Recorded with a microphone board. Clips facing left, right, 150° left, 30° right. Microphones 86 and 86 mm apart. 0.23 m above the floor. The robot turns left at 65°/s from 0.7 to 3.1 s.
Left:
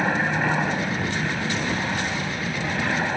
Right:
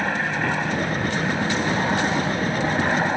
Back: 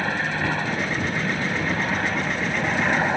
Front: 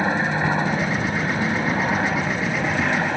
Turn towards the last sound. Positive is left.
turn(degrees=-145)